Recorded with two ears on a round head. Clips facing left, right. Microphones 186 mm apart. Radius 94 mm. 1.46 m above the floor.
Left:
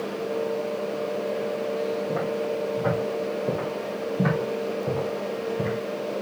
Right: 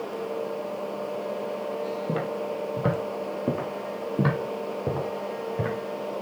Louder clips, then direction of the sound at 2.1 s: Left 3 dB; 50° right (ahead or behind).